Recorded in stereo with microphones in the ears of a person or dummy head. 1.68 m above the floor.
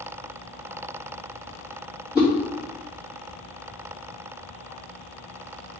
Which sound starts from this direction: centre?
A whoosh, at 2.1 s.